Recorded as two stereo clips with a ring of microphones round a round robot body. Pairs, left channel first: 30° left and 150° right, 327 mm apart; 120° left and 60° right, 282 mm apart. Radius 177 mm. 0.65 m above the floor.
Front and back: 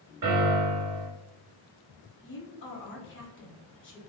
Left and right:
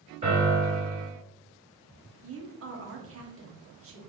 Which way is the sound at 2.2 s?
25° right.